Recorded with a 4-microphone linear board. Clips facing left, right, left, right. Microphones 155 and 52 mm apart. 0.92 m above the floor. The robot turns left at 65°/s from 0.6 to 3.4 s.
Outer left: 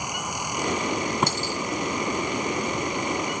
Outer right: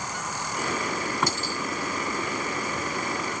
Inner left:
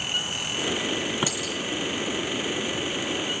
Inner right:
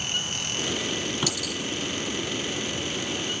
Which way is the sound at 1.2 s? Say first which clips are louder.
Outer left 2 dB, inner left 1 dB; 25° left (ahead or behind).